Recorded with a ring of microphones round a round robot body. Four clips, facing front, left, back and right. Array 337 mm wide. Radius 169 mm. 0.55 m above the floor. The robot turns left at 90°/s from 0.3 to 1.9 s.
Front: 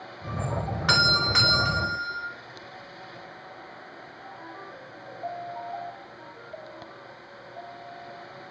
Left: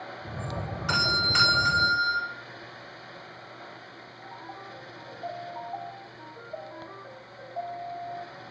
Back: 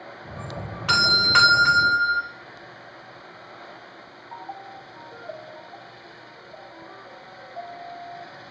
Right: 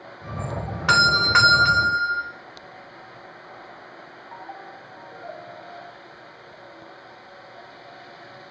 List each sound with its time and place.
0.9 s a doorbell: 80° right, 3 m; by 2.2 s 170° right, 3 m